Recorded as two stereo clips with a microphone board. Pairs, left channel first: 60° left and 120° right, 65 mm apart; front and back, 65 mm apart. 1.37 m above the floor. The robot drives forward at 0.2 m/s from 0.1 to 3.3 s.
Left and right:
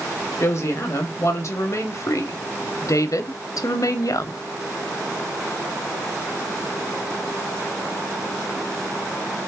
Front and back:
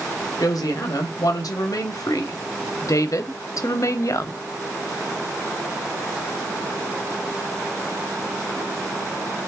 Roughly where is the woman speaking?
Ahead.